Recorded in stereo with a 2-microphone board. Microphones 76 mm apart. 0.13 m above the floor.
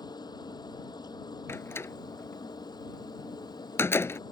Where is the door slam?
35° left (ahead or behind).